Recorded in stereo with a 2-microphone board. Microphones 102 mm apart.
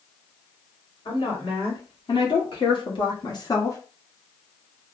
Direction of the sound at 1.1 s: 65° left (ahead or behind).